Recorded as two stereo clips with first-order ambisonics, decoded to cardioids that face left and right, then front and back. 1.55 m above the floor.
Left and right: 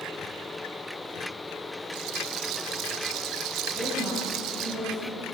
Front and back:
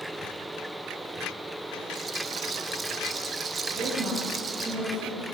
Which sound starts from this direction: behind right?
A rattle, at 1.9 s.